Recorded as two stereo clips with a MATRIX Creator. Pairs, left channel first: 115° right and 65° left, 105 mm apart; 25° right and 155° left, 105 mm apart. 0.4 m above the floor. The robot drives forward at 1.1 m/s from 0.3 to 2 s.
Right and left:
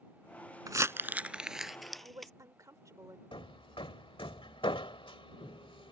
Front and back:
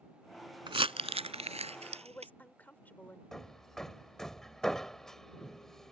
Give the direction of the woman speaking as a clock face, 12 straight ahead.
11 o'clock.